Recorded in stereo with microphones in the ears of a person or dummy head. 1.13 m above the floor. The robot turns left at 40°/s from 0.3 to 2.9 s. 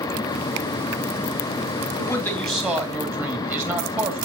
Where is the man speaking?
25° left, 2.5 m; by 4.3 s 15° right, 2.5 m.